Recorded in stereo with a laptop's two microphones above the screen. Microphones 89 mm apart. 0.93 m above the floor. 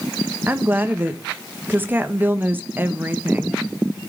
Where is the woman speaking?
20° right (ahead or behind), 0.7 m.